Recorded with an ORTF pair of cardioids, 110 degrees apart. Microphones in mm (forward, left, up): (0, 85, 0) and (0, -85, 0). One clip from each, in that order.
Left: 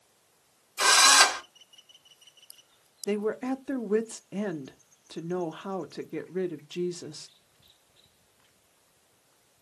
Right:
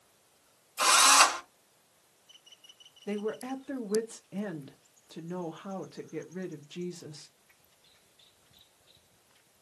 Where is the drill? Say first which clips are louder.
Left 2 dB; 5° left, 2.5 m.